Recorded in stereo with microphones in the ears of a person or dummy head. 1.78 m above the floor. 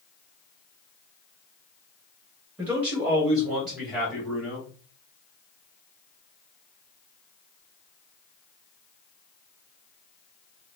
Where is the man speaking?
10° right (ahead or behind), 2 m; by 4.7 s centre (ahead or behind), 3 m.